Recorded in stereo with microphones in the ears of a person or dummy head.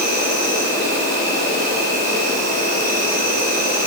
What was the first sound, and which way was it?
An insect, 40° right (ahead or behind).